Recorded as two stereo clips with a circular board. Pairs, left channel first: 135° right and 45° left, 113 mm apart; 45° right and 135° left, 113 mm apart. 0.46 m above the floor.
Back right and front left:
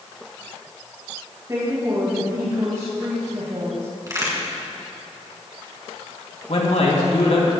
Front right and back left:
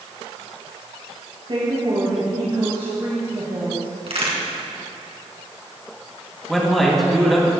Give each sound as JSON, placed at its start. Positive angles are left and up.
{"t": 1.5, "sound": "a woman speaking", "azimuth_deg": 100, "distance_m": 3.0}
{"t": 4.1, "sound": "a crack", "azimuth_deg": 105, "distance_m": 3.0}
{"t": 6.5, "sound": "a man speaking", "azimuth_deg": -135, "distance_m": 3.5}